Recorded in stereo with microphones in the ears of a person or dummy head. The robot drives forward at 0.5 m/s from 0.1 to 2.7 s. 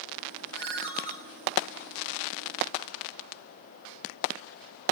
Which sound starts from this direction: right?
A ringtone, at 0.5 s.